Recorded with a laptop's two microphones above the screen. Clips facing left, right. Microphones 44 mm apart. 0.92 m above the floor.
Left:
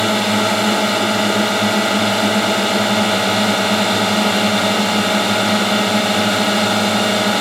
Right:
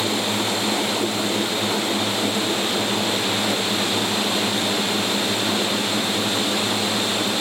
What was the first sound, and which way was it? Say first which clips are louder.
A drone: left 7 dB; 75° left (ahead or behind).